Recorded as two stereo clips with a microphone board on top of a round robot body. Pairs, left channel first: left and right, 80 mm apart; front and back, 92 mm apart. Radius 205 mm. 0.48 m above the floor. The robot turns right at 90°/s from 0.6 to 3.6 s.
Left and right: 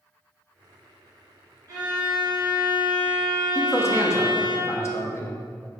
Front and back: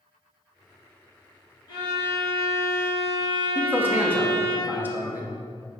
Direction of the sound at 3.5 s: 115° left.